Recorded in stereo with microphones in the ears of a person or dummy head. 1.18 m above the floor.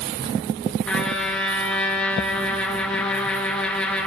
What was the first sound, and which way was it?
A trumpet, 5° left (ahead or behind).